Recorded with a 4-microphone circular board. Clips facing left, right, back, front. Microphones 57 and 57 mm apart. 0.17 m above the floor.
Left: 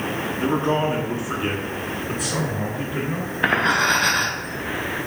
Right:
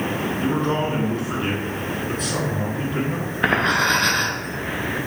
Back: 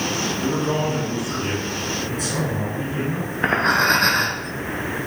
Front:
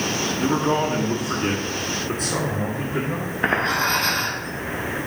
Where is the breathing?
Straight behind, 1.4 m.